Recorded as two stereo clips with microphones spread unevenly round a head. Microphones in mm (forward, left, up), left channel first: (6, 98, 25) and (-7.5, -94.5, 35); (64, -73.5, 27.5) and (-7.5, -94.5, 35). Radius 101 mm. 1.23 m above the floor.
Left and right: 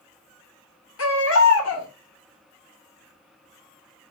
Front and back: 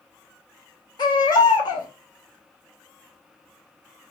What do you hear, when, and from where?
1.0 s a baby crying: 75° left, 3.5 m